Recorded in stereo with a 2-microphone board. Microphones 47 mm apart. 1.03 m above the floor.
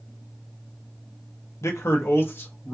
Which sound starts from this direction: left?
A man speaking, at 1.6 s.